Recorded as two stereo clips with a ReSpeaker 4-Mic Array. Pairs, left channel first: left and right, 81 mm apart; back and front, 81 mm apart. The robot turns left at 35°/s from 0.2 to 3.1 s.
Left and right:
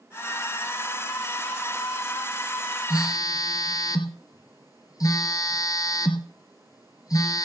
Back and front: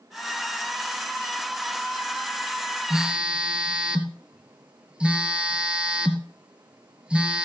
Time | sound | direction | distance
2.9 | a phone buzzing | 80° left | 2.5 m